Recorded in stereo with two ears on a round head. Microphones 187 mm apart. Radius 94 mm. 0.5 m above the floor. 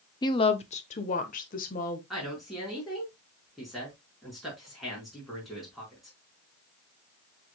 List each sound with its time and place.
0.2 s a woman speaking: 20° left (ahead or behind), 0.7 m; by 2.0 s 40° left (ahead or behind), 1.9 m
2.1 s a woman speaking: centre (ahead or behind), 4.5 m